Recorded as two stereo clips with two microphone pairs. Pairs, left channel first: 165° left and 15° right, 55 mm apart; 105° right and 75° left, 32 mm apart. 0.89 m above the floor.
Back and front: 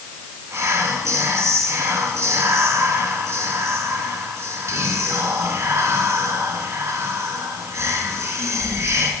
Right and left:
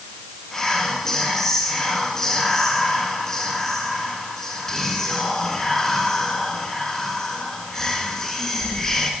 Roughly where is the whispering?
Ahead right.